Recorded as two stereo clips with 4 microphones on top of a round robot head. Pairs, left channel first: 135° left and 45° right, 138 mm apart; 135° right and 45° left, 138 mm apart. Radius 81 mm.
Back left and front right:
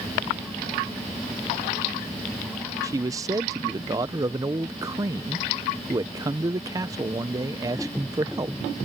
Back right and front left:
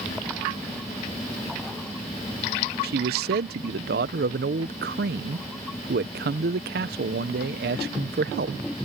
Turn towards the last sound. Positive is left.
turn(degrees=25)